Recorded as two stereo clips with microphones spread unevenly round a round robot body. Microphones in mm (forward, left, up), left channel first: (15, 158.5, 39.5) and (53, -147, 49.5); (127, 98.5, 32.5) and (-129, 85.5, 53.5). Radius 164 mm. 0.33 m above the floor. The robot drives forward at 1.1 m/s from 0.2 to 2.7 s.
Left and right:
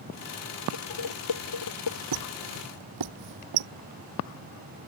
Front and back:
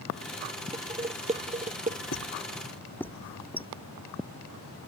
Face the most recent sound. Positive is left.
turn(degrees=-85)